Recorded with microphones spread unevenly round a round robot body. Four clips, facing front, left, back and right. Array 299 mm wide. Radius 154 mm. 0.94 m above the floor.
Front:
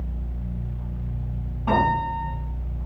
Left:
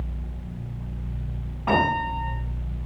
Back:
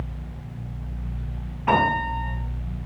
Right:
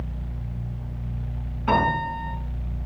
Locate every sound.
1.7 s a piano: 60° left, 5 m